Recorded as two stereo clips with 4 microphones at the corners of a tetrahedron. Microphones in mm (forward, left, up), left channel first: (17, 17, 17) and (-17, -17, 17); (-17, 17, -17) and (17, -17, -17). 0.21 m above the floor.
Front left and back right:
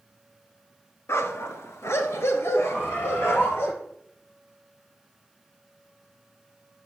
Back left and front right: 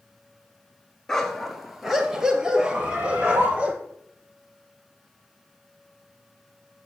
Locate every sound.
1.1 s a dog barking: 55° left, 1.5 m; by 3.7 s 20° left, 2.5 m
2.7 s a bird: straight ahead, 7 m